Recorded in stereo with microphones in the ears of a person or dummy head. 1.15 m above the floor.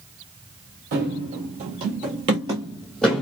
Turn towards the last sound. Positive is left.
turn(degrees=10)  # may be behind; listen again after turning